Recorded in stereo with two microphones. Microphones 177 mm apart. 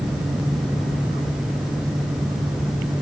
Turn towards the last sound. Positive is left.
No sound to turn to.